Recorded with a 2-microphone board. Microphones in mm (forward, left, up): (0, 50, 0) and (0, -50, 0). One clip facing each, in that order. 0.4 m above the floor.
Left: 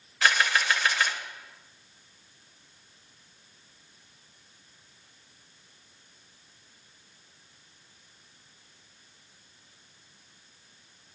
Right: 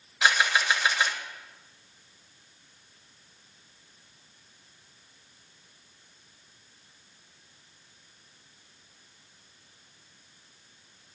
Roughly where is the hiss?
No hiss in this recording.